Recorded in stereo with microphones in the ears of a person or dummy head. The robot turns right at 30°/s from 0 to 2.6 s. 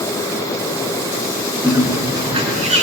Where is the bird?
10° right (ahead or behind), 5.5 m; by 2.9 s 35° right (ahead or behind), 5.5 m.